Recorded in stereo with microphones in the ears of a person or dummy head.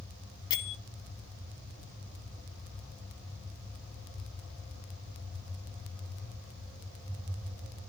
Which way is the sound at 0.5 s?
25° left (ahead or behind).